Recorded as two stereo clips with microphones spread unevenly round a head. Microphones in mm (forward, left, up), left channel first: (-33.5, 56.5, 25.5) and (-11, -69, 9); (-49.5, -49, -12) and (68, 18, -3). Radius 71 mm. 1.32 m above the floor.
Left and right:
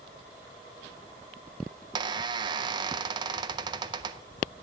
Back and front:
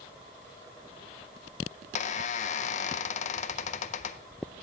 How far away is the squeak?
About 0.5 m.